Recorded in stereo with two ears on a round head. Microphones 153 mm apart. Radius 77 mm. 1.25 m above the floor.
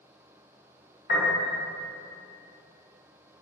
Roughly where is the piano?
Left.